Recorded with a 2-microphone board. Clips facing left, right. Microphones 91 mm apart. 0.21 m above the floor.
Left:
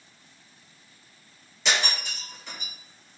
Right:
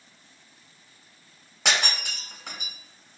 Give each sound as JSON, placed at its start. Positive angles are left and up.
{"t": 1.6, "sound": "breaking glass", "side_deg": -65, "distance_m": 1.2}